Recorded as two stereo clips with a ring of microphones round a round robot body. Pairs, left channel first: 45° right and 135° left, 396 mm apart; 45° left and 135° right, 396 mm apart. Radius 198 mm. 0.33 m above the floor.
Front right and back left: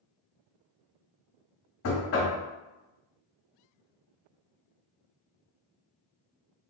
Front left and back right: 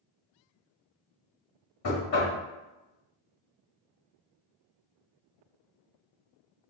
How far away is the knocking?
About 1.1 m.